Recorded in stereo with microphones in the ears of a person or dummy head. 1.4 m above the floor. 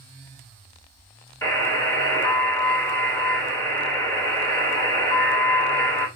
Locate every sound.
1.4 s a buzzer: 15° left (ahead or behind), 2.5 m